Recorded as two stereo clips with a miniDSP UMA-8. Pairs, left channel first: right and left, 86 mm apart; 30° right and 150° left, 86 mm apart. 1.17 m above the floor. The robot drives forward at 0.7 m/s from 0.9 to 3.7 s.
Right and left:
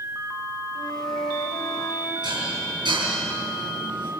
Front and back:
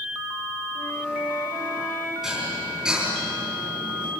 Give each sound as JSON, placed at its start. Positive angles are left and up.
{"t": 0.8, "sound": "a flute", "azimuth_deg": -95, "distance_m": 2.0}
{"t": 2.2, "sound": "dishes clattering", "azimuth_deg": 65, "distance_m": 8.0}